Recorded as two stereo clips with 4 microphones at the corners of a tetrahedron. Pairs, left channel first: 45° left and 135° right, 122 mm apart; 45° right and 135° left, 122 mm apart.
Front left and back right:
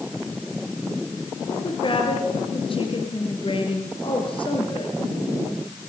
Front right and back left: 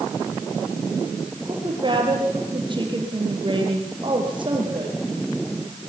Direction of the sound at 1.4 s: 85° left.